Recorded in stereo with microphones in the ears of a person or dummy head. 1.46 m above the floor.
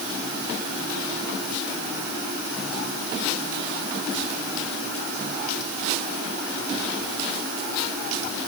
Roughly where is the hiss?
I don't hear a hiss.